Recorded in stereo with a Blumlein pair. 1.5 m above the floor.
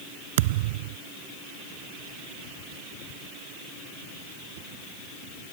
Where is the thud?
50° right.